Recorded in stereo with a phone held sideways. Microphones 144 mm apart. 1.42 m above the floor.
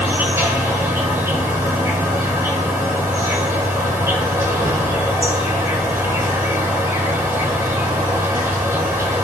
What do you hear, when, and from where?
0.0 s an insect: 20° right (ahead or behind), 1.6 m